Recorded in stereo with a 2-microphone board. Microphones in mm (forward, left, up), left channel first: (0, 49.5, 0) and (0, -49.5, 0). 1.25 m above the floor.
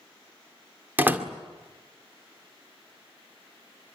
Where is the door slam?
20° right (ahead or behind), 2 m.